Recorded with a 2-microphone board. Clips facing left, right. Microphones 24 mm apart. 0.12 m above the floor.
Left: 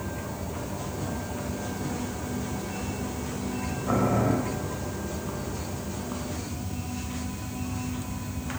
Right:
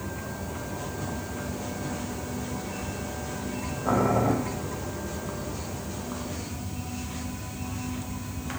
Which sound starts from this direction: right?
Boiling, at 3.9 s.